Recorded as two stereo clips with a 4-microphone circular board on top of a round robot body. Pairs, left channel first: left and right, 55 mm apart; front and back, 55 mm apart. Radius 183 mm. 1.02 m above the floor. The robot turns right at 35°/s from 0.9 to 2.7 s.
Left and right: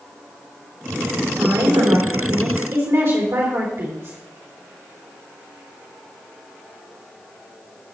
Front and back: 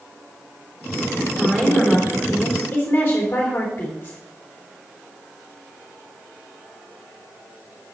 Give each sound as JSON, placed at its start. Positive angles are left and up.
{"t": 1.4, "sound": "a woman speaking", "azimuth_deg": -105, "distance_m": 3.5}